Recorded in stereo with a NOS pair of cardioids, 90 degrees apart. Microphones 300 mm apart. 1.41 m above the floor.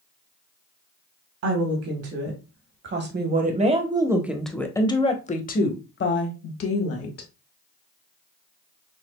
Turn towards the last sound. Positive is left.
turn(degrees=55)